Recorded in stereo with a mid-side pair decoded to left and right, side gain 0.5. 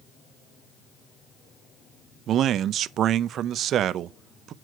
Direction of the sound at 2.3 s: 60° right.